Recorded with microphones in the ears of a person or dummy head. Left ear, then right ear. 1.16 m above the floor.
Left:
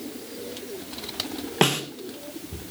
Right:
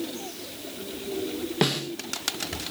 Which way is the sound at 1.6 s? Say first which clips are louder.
Left 4 dB; 30° left (ahead or behind).